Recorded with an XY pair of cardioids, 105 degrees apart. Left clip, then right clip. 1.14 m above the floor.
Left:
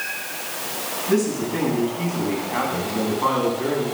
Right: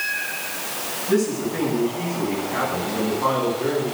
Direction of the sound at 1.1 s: 20° left.